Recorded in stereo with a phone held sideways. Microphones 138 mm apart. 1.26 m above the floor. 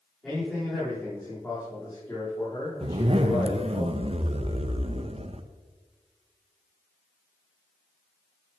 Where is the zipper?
45° right (ahead or behind), 0.7 m.